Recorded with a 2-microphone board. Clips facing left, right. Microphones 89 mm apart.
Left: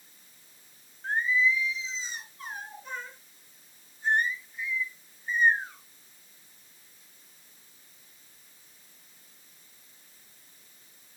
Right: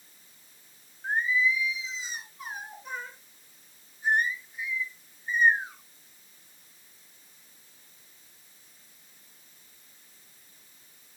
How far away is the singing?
About 3 m.